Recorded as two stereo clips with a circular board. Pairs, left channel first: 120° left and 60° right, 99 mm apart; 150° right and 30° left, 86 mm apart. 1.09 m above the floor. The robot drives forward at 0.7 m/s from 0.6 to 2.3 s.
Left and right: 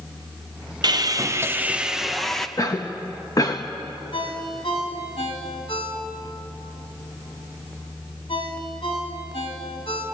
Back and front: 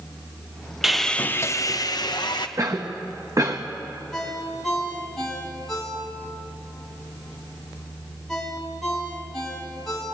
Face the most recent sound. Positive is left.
turn(degrees=125)